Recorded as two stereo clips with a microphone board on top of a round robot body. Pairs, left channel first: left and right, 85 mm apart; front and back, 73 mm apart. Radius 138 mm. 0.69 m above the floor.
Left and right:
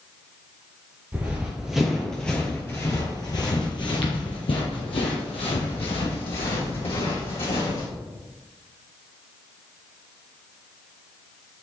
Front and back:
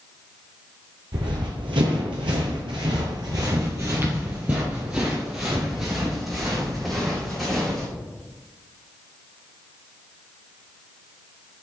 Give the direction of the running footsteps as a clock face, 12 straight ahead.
5 o'clock.